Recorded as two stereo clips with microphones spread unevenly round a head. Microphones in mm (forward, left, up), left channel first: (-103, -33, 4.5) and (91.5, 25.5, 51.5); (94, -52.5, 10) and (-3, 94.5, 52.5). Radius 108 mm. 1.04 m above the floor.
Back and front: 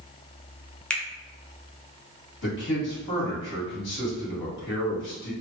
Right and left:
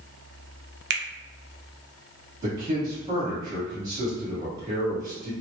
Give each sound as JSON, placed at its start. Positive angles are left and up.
{"t": 0.9, "sound": "a finger snap", "azimuth_deg": 125, "distance_m": 0.6}
{"t": 2.4, "sound": "a man speaking", "azimuth_deg": -160, "distance_m": 1.8}